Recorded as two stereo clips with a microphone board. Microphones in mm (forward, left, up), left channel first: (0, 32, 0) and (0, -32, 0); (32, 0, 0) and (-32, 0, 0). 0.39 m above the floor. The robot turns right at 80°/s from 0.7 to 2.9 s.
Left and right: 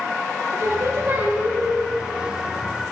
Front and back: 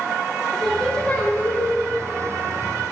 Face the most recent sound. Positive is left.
turn(degrees=85)